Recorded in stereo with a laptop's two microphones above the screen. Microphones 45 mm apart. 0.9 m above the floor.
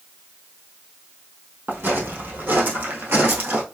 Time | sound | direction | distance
1.7 | footsteps | 45° right (ahead or behind) | 1.8 m